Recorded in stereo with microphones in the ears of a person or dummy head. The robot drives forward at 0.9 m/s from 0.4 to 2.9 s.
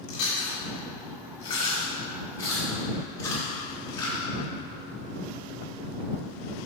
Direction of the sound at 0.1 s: 45° left (ahead or behind).